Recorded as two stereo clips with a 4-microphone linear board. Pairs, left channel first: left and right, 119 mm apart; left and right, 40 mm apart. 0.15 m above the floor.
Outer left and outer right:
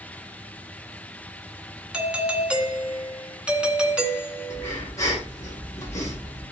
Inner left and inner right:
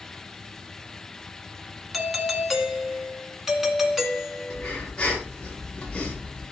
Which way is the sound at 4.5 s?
25° left (ahead or behind).